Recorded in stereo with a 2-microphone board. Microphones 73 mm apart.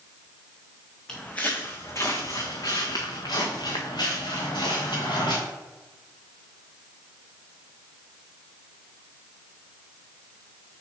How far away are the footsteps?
About 1.0 m.